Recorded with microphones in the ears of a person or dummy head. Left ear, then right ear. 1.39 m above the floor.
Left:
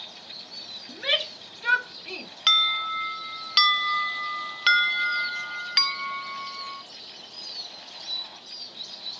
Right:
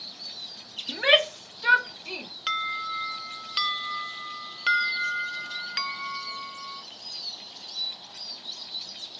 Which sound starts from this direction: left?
An alarm, at 2.5 s.